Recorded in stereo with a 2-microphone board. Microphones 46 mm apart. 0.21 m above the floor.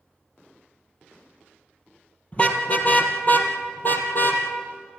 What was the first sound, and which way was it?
A car horn, 25° left (ahead or behind).